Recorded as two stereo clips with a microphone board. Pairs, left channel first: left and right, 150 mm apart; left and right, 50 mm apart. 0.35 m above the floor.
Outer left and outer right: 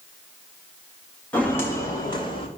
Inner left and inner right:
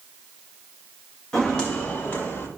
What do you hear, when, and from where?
1.3 s footsteps: 10° left (ahead or behind), 3.5 m; by 2.5 s 35° left (ahead or behind), 3.5 m